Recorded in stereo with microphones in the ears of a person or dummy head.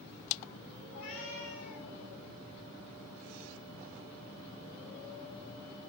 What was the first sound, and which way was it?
A cat meowing, 50° left (ahead or behind).